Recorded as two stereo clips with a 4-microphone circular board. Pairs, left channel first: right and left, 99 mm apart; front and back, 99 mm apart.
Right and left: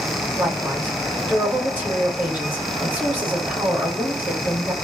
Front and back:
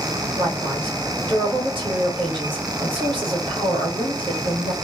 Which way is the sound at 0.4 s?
160° left.